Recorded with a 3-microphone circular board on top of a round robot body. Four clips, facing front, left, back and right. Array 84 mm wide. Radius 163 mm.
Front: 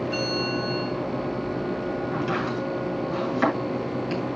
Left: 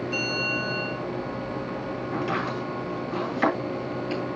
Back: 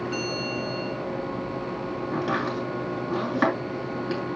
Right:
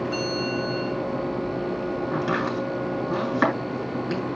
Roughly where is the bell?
Right.